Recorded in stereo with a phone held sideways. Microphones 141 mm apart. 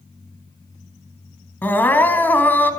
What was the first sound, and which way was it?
Crying, 15° left (ahead or behind).